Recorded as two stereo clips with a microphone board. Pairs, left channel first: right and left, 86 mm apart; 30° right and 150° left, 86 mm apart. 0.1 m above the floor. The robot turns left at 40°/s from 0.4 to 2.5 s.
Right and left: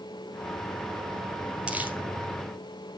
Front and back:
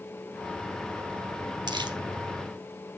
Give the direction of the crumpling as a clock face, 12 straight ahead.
7 o'clock.